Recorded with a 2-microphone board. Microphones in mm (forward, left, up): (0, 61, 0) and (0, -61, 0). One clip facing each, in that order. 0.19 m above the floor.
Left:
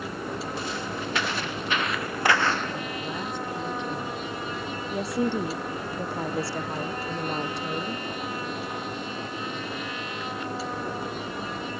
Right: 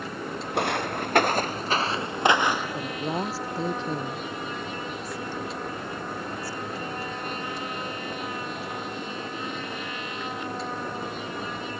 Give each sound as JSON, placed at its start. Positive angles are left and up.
{"t": 0.5, "sound": "footsteps", "side_deg": -70}
{"t": 2.8, "sound": "a woman speaking", "side_deg": -35}
{"t": 4.9, "sound": "a woman speaking", "side_deg": 75}